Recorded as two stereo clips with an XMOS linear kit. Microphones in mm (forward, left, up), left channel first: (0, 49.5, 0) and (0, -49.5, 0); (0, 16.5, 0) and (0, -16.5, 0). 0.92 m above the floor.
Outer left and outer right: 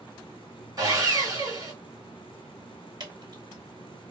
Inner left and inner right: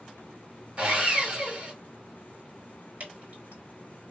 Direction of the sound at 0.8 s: 40° right (ahead or behind).